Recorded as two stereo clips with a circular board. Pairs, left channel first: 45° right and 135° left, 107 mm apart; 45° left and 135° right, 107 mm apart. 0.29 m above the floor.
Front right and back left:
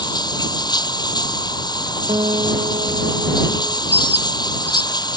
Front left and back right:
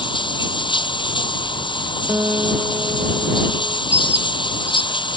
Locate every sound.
0.0 s running water: 5° left
2.1 s a guitar: 165° left
3.9 s a bird: 175° left